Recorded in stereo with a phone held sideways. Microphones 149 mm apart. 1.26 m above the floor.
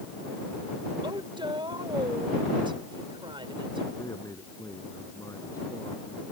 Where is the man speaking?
20° left (ahead or behind).